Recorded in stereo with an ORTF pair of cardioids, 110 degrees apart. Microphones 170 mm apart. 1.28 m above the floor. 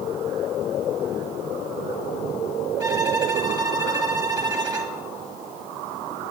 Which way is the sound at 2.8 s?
25° right.